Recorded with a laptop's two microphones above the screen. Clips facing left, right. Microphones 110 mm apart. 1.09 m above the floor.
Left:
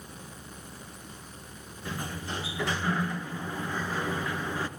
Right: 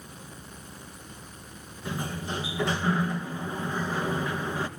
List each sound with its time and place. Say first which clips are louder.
1.9 s a sliding door: right 3 dB; 20° right (ahead or behind), 2.5 m